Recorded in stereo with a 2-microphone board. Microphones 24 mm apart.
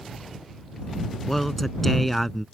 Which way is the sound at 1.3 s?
10° left (ahead or behind).